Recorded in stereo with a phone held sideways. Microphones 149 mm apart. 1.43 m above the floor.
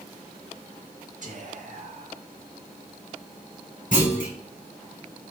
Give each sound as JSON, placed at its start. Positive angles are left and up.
{"t": 1.2, "sound": "whispering", "side_deg": -60, "distance_m": 1.1}
{"t": 3.9, "sound": "a clunk", "side_deg": 65, "distance_m": 1.9}